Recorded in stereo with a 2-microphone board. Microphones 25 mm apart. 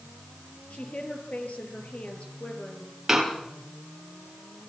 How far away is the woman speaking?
About 5 m.